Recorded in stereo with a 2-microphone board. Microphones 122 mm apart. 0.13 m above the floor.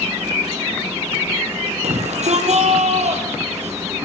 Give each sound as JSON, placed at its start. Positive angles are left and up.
{"t": 1.8, "sound": "a shout", "side_deg": -65, "distance_m": 4.5}